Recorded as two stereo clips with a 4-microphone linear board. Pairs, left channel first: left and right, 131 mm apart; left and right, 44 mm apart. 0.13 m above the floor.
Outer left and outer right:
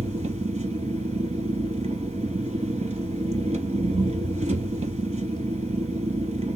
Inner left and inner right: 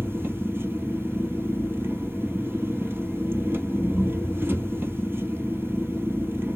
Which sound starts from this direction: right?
An engine running, at 0.0 s.